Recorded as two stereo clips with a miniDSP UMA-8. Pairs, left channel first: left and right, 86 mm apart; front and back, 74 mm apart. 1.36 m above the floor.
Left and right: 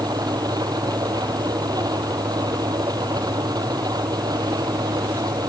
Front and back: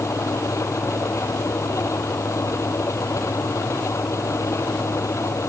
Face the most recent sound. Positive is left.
turn(degrees=-50)